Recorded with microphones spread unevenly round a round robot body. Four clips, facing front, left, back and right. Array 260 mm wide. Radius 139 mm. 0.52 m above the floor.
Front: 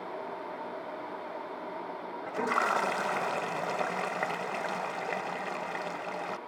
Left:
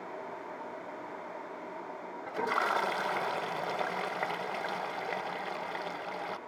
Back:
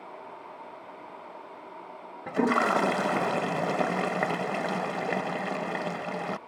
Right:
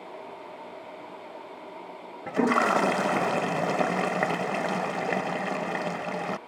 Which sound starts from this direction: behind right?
A toilet flushing, at 2.3 s.